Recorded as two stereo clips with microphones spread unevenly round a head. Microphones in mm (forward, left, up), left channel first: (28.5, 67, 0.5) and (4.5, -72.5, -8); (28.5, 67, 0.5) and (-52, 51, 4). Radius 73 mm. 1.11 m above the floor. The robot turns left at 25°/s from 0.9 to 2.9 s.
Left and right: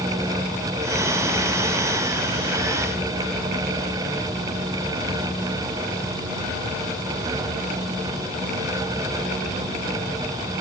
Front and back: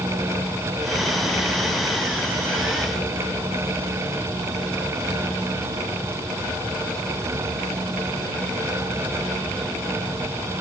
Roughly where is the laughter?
I don't hear laughter.